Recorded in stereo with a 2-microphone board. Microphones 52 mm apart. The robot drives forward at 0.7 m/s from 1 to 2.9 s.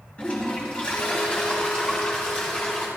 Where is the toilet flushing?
25° left (ahead or behind), 4.5 m; by 2.9 s 20° left (ahead or behind), 5.5 m.